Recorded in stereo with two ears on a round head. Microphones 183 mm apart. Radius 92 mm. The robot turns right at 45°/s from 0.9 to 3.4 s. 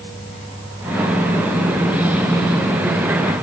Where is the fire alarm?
I don't hear a fire alarm.